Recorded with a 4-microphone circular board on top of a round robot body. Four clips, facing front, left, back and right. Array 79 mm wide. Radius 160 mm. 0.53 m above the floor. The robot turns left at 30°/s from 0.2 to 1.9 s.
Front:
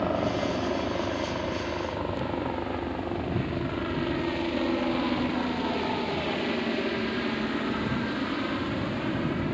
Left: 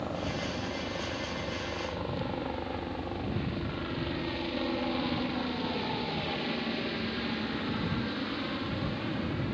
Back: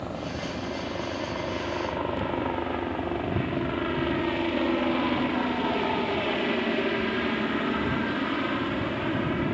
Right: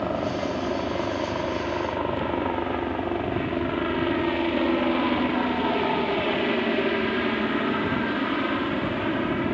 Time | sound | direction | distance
0.0 | a helicopter | 55° right | ?